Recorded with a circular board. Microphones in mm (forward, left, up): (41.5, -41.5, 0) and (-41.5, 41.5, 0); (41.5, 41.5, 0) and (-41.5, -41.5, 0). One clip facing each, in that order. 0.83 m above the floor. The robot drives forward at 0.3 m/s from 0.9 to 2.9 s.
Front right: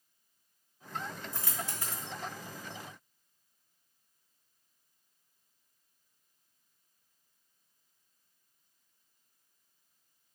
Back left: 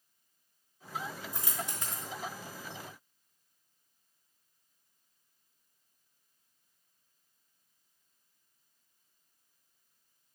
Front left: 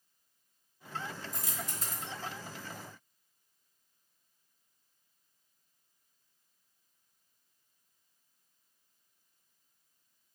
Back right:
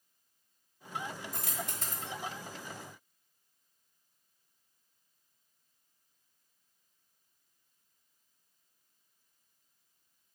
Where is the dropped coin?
150° right, 0.8 m; by 2.1 s 160° right, 1.0 m.